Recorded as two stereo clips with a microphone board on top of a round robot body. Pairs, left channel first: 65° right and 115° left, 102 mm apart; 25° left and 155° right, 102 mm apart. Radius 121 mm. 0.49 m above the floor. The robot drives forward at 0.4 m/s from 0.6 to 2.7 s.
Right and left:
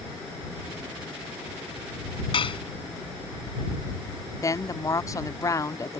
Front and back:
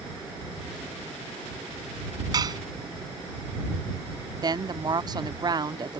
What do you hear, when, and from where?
2.3 s dishes clattering: 105° right
4.4 s a woman speaking: 120° right